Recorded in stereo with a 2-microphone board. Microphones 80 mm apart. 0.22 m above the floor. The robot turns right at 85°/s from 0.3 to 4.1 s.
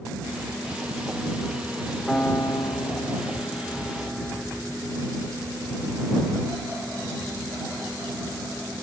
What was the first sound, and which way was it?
A piano, 10° left.